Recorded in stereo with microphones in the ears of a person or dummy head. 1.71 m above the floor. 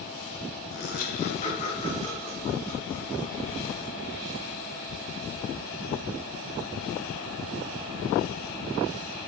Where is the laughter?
75° left (ahead or behind), 1.5 m; by 3.8 s 20° left (ahead or behind), 5 m.